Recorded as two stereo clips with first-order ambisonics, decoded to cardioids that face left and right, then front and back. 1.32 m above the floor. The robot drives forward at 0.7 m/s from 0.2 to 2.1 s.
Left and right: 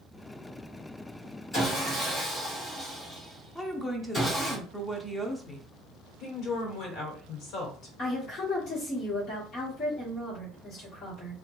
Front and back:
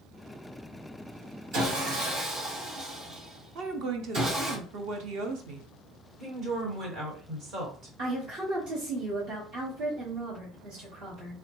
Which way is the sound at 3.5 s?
175° left.